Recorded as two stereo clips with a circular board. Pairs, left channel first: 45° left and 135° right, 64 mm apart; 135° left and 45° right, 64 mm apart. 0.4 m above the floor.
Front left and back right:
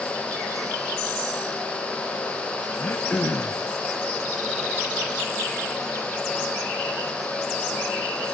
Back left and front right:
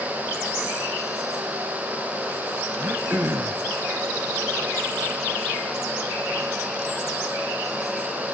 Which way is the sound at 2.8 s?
5° left.